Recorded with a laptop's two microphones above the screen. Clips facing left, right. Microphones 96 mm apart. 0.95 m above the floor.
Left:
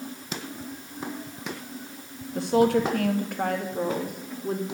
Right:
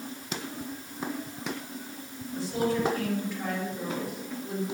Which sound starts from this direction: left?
A woman speaking, at 2.4 s.